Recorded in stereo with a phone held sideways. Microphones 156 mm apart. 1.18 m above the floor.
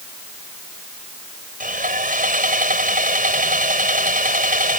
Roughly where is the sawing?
Right.